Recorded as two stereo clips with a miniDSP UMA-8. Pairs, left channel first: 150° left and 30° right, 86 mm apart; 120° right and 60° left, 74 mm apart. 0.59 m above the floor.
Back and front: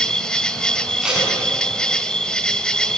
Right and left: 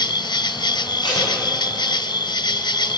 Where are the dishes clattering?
I don't hear dishes clattering.